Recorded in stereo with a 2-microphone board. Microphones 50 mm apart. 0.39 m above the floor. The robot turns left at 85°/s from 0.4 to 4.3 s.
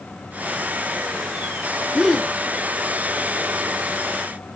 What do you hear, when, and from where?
1.9 s a gasp: 165° right, 1.4 m; by 2.3 s 160° left, 1.4 m